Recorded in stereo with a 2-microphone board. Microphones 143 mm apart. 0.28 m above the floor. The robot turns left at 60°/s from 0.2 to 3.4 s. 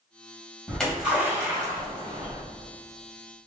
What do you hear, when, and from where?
0.7 s a splash: 10° left (ahead or behind), 1.7 m; by 2.4 s 40° right (ahead or behind), 1.7 m